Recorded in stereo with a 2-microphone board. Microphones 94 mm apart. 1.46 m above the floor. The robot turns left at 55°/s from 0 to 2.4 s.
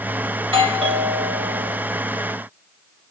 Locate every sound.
0.4 s a doorbell: 65° right, 1.6 m; by 1.8 s 140° right, 1.6 m